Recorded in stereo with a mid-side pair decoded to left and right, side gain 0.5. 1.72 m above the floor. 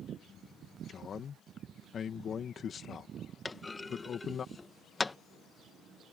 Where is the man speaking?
45° left.